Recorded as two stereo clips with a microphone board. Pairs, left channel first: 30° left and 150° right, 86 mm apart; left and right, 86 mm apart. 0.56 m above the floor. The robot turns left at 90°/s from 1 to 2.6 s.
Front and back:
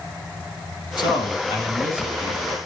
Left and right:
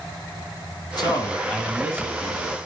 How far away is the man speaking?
About 3.5 m.